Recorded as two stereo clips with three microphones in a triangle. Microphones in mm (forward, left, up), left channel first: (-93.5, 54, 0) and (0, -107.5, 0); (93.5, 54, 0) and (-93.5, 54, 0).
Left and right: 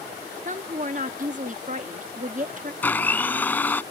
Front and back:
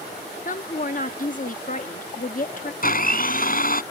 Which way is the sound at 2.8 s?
40° left.